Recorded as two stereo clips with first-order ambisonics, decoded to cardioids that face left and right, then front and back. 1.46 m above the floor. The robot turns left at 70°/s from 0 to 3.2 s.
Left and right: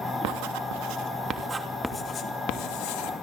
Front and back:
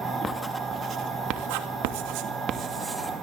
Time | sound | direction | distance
0.2 | writing | 75° right | 2.5 m